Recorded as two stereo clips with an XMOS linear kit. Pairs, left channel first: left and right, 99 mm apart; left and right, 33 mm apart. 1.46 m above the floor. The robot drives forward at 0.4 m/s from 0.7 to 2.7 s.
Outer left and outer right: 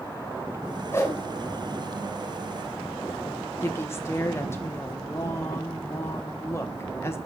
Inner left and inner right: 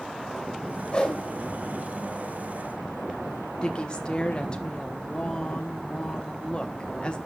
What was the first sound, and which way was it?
A whoosh, 20° left (ahead or behind).